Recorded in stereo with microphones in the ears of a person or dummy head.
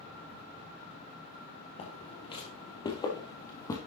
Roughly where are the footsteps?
Left.